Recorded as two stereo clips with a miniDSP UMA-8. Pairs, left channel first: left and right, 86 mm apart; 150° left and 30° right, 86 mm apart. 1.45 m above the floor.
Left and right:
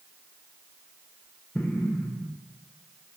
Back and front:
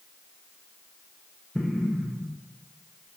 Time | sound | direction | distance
1.6 | an explosion | 70° left | 0.7 m